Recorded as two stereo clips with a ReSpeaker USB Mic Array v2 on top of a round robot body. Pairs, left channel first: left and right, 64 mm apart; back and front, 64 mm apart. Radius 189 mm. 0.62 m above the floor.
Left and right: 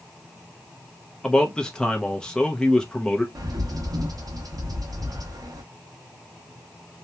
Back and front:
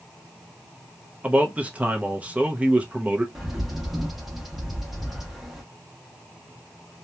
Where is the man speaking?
30° left, 0.8 m.